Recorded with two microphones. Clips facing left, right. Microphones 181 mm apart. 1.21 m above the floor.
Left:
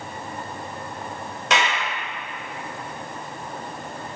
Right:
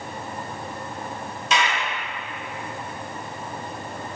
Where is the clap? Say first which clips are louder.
Left 1 dB; 70° left (ahead or behind), 3.5 m.